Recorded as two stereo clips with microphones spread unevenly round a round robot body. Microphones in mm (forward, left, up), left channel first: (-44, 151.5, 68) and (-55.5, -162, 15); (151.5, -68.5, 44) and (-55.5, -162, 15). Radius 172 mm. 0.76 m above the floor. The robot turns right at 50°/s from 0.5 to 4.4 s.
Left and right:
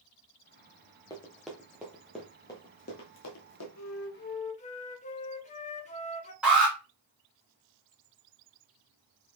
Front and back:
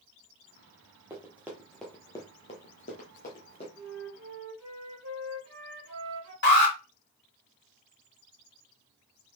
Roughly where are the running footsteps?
Behind left.